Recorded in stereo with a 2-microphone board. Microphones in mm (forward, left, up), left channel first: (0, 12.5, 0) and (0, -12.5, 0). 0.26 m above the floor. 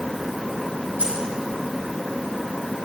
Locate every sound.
1.0 s keys jangling: 60° right (ahead or behind), 6.5 m